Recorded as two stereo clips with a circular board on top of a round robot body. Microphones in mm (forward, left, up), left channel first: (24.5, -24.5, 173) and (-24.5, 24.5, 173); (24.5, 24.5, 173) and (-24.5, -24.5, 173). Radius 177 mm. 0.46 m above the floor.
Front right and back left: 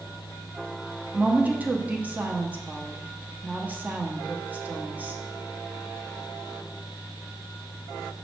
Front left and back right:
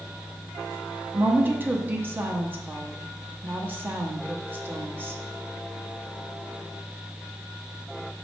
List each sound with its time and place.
1.1 s a woman speaking: 175° right, 0.9 m